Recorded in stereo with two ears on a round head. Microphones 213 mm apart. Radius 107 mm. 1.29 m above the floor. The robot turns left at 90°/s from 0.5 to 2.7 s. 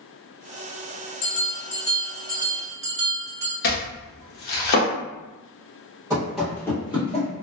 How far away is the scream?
No scream in this recording.